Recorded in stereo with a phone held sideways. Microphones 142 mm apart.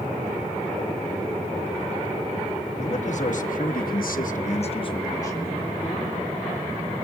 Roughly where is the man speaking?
Left.